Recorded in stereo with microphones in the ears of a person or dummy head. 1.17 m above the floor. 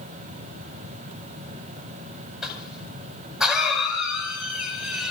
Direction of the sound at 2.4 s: Centre (ahead or behind).